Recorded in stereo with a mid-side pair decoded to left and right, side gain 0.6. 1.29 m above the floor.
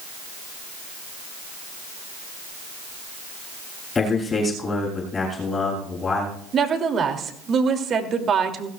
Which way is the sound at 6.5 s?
40° right.